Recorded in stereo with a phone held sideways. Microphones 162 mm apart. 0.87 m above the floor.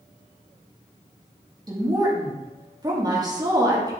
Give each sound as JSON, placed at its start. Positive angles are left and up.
{"t": 1.7, "sound": "a woman speaking", "side_deg": -25, "distance_m": 1.5}